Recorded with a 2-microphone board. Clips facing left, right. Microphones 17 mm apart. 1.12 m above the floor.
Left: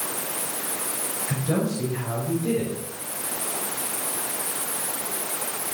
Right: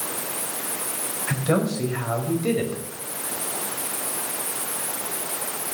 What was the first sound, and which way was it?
A man speaking, 50° right (ahead or behind).